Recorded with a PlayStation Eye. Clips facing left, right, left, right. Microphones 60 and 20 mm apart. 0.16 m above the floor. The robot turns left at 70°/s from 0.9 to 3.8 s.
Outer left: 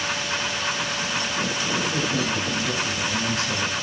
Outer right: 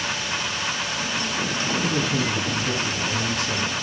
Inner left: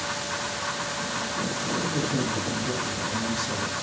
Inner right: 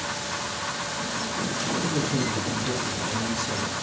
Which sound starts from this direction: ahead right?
A man speaking, at 1.8 s.